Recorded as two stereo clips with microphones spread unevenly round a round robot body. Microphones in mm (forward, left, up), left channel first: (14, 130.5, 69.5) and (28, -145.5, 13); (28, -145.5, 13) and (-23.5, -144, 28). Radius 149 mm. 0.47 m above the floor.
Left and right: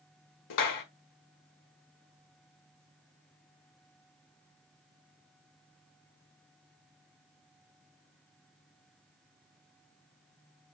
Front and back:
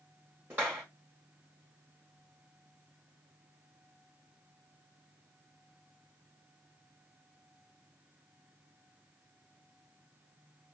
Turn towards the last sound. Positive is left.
turn(degrees=100)